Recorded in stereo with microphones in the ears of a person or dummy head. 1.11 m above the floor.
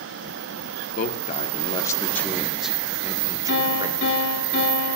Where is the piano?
65° left (ahead or behind), 3.5 m.